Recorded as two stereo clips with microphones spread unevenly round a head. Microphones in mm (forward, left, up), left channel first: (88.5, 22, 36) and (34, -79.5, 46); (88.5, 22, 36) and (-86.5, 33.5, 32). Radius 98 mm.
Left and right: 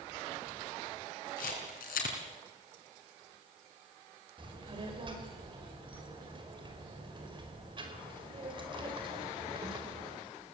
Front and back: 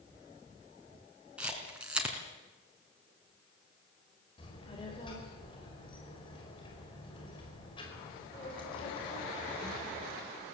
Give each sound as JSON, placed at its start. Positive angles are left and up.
{"t": 1.4, "sound": "a camera shutter", "azimuth_deg": 90, "distance_m": 3.5}
{"t": 4.4, "sound": "a child speaking", "azimuth_deg": -70, "distance_m": 4.5}